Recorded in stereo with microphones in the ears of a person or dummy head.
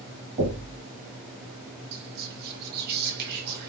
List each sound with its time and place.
0.4 s knocking: 40° right (ahead or behind), 1.3 m
1.9 s whispering: 55° right (ahead or behind), 0.9 m